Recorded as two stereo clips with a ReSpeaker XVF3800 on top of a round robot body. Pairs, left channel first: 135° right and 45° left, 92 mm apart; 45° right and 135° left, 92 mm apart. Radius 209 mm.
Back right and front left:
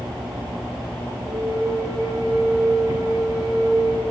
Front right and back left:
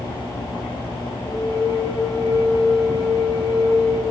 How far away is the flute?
About 6 m.